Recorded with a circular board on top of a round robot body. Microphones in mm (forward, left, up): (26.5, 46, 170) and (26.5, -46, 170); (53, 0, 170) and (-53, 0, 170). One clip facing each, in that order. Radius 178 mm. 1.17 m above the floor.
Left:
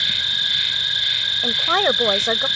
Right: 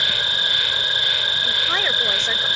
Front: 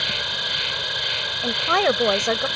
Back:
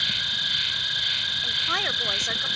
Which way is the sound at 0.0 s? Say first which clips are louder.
Right 4 dB, front 5 dB; 45° right.